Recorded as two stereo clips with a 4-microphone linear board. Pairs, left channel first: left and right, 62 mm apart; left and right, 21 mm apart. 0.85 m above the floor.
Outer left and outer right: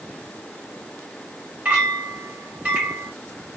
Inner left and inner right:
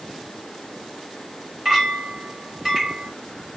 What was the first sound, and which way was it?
A clink, 20° right (ahead or behind).